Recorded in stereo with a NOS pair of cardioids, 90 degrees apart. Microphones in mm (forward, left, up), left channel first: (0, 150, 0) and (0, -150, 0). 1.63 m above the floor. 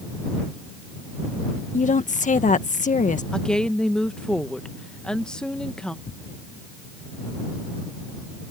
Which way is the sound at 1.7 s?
25° left.